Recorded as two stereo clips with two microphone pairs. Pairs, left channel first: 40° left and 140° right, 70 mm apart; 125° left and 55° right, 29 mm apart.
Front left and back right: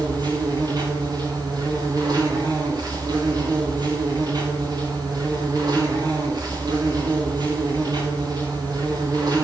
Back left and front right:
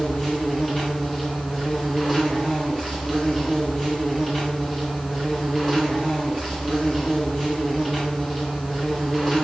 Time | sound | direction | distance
0.0 | an insect | 160° right | 7.5 m